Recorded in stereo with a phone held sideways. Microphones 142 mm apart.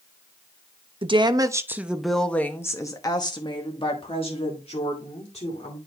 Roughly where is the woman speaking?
Right.